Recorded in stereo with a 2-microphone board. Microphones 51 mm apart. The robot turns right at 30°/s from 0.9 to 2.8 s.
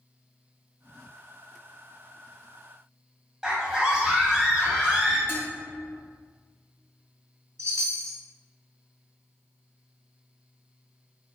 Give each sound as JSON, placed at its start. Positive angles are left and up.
{"t": 3.4, "sound": "a scream", "side_deg": -10, "distance_m": 1.0}
{"t": 5.3, "sound": "dishes clattering", "side_deg": 45, "distance_m": 1.0}
{"t": 7.6, "sound": "a chime", "side_deg": -70, "distance_m": 2.0}